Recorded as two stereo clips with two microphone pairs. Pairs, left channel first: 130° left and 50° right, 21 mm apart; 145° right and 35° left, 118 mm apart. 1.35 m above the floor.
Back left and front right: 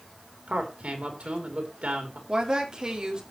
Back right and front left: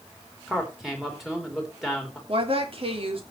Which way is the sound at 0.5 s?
55° right.